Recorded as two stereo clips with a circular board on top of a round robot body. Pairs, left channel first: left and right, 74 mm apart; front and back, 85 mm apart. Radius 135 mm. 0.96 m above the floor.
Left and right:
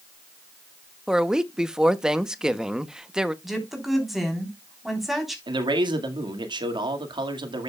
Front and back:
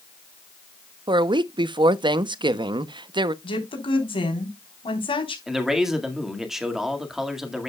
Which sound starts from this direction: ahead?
A woman speaking, at 3.4 s.